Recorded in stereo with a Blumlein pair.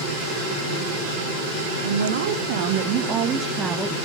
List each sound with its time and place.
1.8 s a woman speaking: 65° right, 1.4 m; by 4.0 s straight ahead, 1.3 m